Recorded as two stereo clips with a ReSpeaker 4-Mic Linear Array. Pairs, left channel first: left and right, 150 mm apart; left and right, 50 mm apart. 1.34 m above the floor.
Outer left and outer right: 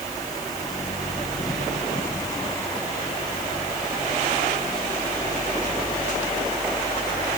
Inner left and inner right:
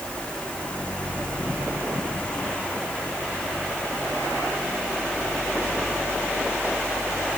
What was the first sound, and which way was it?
Only background noise.